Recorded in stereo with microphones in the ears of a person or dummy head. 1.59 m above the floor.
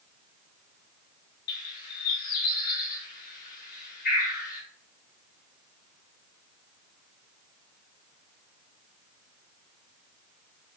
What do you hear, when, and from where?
1.5 s a bird: 45° left (ahead or behind), 1.1 m